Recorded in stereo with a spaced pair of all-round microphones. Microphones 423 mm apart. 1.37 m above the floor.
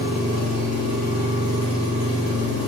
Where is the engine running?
35° left (ahead or behind), 1.2 m.